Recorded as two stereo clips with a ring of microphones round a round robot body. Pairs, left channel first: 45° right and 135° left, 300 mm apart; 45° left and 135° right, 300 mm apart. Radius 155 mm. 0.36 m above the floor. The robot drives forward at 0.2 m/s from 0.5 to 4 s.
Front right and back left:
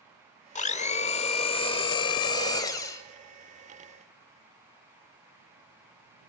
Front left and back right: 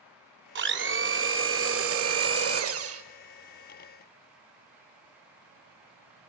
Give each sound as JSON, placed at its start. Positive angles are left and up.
{"t": 0.6, "sound": "a blender", "azimuth_deg": -100, "distance_m": 1.7}